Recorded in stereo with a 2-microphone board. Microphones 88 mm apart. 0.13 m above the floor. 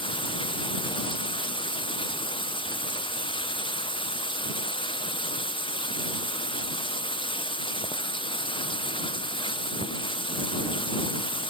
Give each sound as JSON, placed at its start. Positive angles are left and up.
{"t": 0.0, "sound": "running water", "side_deg": 70}